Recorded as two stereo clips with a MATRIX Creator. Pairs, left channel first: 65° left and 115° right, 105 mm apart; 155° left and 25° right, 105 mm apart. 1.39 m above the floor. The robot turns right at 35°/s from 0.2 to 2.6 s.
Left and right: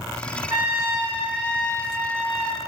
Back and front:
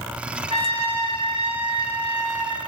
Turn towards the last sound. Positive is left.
turn(degrees=10)